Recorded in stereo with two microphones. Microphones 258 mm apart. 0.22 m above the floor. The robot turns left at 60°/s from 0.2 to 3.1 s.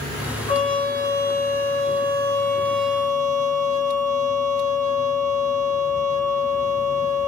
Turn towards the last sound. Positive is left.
turn(degrees=-15)